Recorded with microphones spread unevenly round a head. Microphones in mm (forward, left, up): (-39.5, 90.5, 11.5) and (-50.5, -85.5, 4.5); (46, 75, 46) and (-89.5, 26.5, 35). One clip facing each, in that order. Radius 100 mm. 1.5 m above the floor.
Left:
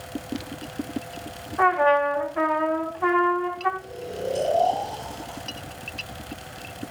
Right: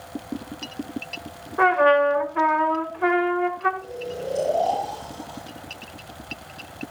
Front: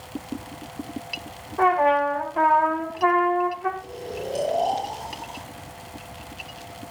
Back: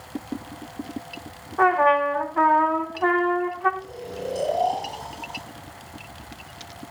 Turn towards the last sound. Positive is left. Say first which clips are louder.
# even, even
turn(degrees=20)